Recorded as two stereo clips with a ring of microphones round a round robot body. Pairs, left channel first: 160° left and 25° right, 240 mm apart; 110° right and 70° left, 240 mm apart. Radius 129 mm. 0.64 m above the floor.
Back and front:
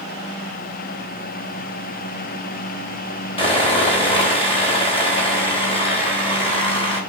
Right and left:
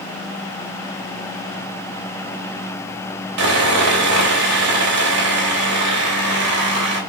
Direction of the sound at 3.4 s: 90° left.